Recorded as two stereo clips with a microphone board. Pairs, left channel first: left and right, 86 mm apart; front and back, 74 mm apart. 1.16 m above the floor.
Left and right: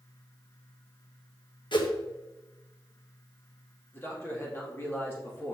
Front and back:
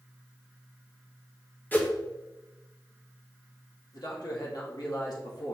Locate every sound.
1.7 s a whoosh: 65° left, 1.1 m
3.9 s a man speaking: 30° left, 2.5 m